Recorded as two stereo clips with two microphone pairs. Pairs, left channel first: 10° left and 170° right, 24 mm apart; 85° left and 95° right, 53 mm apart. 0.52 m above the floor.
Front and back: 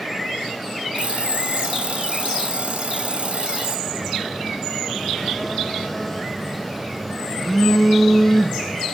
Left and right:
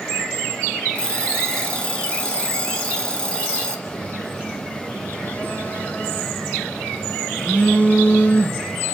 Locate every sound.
0.9 s an alarm clock: 150° left, 1.4 m
3.9 s a phone buzzing: 80° left, 1.1 m